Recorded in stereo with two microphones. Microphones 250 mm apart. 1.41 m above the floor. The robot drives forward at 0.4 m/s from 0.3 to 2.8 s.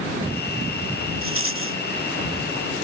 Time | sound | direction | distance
1.2 | a rattle | 55° right (ahead or behind) | ?